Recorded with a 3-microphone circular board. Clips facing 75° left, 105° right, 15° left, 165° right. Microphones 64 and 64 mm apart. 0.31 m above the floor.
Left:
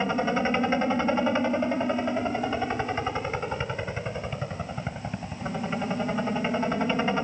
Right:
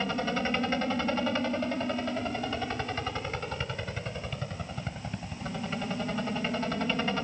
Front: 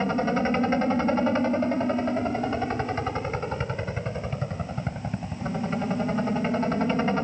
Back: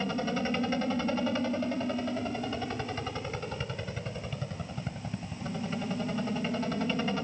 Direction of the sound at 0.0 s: 20° left.